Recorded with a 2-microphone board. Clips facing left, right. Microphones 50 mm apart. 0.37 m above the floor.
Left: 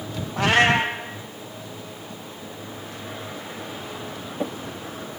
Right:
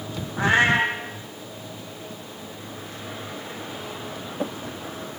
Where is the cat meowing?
85° left, 3 m.